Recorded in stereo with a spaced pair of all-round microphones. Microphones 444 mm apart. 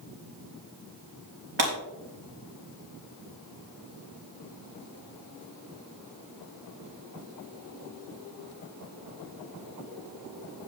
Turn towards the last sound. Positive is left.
turn(degrees=-80)